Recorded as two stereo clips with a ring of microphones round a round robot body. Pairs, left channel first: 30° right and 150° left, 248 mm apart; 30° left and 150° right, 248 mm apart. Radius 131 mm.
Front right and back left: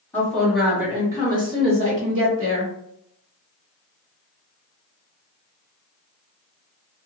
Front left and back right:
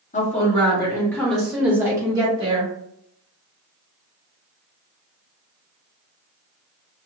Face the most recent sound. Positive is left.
turn(degrees=160)